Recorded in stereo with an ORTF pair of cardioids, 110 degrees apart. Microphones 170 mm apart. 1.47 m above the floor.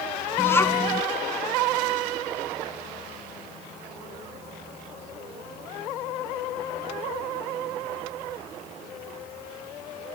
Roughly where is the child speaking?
Ahead.